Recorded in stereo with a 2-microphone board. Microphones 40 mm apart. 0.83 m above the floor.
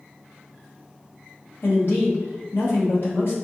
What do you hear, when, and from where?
1.6 s a man speaking: 60° left (ahead or behind), 1.1 m